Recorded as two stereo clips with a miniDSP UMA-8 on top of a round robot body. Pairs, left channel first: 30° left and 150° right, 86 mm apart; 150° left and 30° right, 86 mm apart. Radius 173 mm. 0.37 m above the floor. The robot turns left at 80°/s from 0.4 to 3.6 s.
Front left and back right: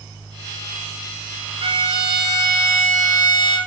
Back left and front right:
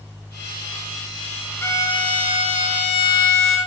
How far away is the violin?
About 0.7 m.